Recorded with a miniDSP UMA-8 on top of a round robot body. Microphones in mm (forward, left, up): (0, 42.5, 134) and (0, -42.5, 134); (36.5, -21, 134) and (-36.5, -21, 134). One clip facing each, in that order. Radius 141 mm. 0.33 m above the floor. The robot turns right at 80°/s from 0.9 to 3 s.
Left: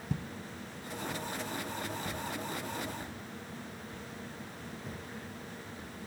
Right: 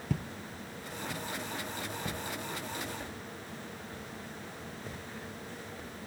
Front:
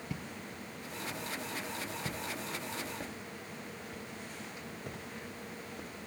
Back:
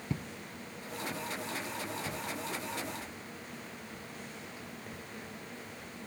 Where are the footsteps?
125° right, 0.5 m; by 5.9 s 10° left, 7 m.